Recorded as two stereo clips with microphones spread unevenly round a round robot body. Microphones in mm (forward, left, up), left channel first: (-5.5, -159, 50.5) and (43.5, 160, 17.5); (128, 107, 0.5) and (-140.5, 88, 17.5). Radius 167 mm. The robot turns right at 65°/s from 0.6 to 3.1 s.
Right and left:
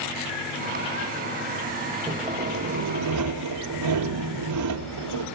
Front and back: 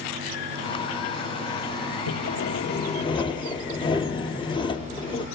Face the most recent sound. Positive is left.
turn(degrees=75)